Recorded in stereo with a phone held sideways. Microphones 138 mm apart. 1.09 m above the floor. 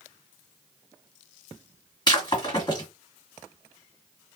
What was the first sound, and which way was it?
Breaking glass, 30° left (ahead or behind).